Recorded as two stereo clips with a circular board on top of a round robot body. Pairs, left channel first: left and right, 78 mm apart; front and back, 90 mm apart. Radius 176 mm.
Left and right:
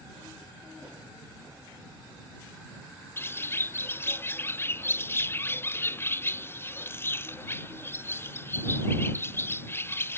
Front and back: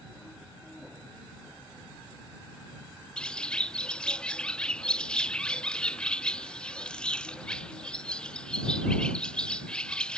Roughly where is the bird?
Left.